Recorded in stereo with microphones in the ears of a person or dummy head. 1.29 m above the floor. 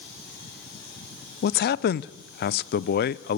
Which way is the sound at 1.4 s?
50° left (ahead or behind).